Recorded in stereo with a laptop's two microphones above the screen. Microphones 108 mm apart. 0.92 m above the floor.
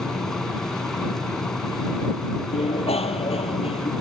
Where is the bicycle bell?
70° left (ahead or behind).